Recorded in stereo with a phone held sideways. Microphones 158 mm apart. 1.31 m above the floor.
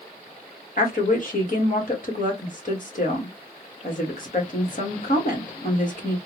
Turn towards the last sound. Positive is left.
turn(degrees=60)  # may be behind; listen again after turning